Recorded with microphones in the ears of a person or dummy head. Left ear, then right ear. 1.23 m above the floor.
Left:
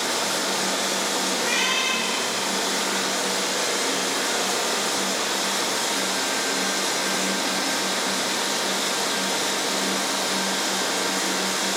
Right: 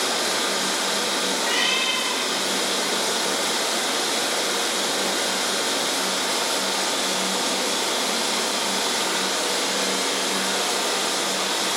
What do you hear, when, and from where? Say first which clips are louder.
1.3 s a cat meowing: right 1 dB; 25° left (ahead or behind), 4 m